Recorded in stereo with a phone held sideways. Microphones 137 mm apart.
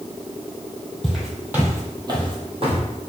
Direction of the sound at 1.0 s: Centre (ahead or behind).